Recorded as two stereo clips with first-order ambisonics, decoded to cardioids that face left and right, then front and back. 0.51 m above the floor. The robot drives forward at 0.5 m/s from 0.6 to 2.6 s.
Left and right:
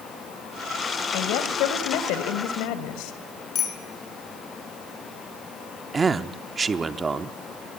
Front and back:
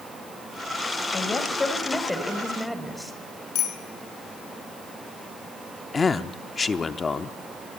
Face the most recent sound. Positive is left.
turn(degrees=-40)